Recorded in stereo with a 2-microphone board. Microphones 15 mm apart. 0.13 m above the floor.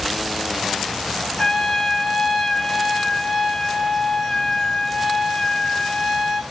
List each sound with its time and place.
1.4 s a trumpet: 30° left (ahead or behind), 0.8 m